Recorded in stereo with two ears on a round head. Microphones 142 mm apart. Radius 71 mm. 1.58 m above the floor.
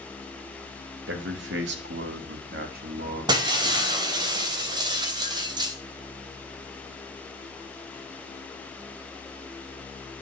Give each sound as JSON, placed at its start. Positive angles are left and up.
{"t": 1.1, "sound": "a man speaking", "side_deg": -80, "distance_m": 2.5}
{"t": 3.3, "sound": "breaking glass", "side_deg": -30, "distance_m": 3.0}